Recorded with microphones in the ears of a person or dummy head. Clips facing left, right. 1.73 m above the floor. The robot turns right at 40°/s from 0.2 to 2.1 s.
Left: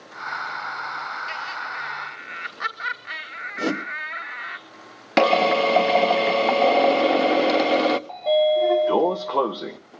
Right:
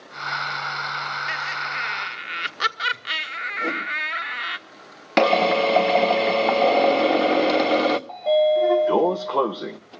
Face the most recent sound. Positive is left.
turn(degrees=0)  # may be behind; listen again after turning